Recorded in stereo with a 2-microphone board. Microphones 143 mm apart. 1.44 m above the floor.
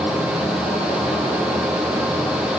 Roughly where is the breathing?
I don't hear breathing.